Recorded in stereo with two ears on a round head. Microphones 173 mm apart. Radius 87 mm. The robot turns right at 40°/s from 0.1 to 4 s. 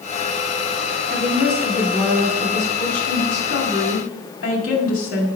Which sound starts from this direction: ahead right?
A woman speaking, at 1.1 s.